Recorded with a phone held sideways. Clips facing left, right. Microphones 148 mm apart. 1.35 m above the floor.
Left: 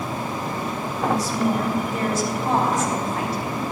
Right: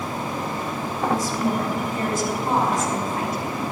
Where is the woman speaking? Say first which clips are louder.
Left 1 dB; 70° left (ahead or behind), 3.5 m.